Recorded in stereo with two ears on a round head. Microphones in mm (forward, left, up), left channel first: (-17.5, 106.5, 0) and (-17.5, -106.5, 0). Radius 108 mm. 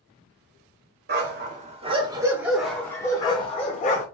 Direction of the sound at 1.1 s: 45° right (ahead or behind).